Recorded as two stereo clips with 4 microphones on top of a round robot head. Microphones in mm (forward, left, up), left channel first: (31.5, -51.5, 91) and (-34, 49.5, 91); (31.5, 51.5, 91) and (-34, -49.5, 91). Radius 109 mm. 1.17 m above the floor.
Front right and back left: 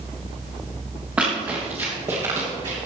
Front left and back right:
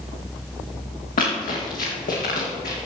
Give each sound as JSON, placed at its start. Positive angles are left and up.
{"t": 1.2, "sound": "running footsteps", "azimuth_deg": 45, "distance_m": 3.5}